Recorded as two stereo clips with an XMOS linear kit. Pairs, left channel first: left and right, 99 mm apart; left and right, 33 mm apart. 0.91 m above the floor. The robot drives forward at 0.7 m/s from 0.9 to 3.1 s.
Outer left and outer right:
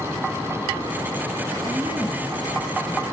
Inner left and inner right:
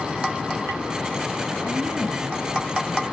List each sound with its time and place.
1.6 s a woman speaking: 35° right (ahead or behind), 0.7 m; by 3.0 s 15° right (ahead or behind), 1.5 m